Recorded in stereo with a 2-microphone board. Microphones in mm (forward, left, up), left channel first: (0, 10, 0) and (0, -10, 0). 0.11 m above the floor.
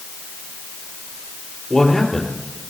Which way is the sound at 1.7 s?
25° left (ahead or behind).